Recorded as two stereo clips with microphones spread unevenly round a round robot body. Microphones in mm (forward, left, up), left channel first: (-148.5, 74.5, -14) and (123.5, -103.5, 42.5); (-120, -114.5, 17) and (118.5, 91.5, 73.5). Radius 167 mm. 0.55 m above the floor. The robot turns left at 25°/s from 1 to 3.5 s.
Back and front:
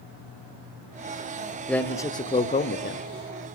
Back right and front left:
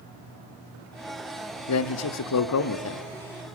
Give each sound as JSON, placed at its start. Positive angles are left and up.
{"t": 1.7, "sound": "a man speaking", "azimuth_deg": -130, "distance_m": 1.3}